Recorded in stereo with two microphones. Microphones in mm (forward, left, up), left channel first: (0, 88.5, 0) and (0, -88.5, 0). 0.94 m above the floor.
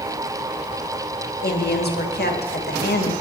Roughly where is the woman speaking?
Left.